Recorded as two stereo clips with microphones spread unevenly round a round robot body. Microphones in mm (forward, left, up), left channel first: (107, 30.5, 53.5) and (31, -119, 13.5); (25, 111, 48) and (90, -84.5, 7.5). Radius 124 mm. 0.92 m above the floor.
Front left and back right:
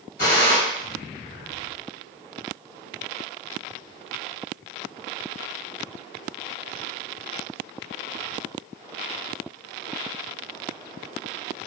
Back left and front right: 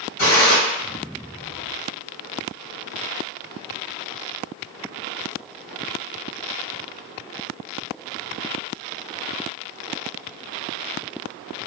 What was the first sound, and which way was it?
A gunshot, 110° left.